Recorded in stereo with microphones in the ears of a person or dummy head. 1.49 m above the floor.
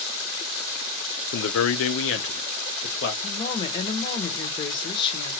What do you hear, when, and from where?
1.3 s a man speaking: 60° left (ahead or behind), 0.6 m; by 3.1 s 55° left (ahead or behind), 1.3 m
3.2 s a woman speaking: 30° left (ahead or behind), 1.3 m